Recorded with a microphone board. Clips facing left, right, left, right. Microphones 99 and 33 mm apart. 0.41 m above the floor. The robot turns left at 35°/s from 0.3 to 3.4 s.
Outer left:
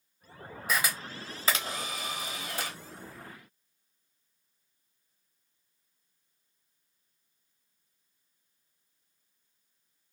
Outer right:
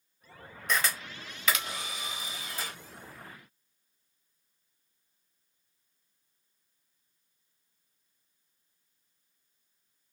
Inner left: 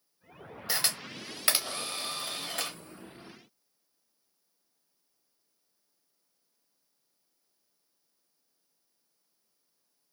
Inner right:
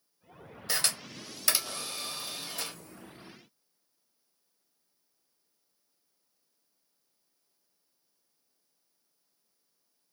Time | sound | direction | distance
0.7 | a camera shutter | 5° left (ahead or behind) | 0.7 m